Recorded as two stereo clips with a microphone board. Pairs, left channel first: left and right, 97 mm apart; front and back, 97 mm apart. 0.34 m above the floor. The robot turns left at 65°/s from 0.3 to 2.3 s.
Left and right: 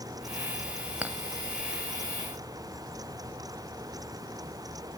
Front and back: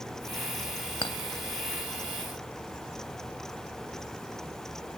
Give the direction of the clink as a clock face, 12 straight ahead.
1 o'clock.